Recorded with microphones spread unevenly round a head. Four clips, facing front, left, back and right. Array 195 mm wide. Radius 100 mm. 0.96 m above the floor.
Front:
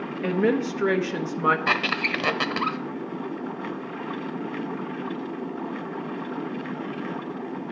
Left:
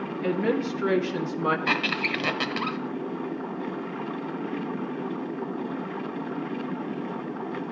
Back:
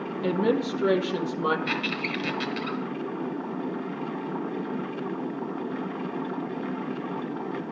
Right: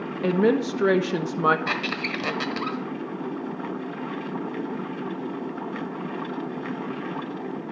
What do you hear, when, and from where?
0.2 s a woman speaking: 75° right, 1.4 m
1.7 s a squeak: 10° right, 1.1 m